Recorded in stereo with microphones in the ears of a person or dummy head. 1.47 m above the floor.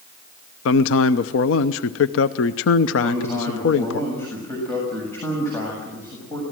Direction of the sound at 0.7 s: 85° left.